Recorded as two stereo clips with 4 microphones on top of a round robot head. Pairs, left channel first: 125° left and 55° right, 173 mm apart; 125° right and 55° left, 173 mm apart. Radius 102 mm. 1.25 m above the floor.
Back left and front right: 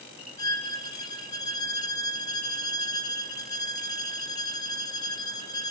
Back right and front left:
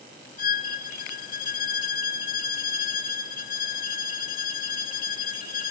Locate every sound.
0.4 s a violin: 165° right, 1.7 m